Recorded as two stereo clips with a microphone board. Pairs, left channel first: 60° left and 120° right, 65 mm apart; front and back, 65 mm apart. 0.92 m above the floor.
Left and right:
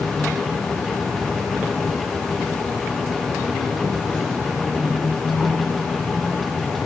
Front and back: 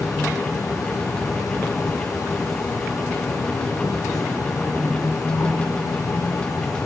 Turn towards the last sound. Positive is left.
turn(degrees=-15)